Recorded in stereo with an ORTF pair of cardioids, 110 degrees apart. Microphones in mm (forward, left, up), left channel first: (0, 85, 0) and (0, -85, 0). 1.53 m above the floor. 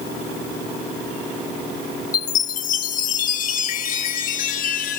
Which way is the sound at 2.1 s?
50° left.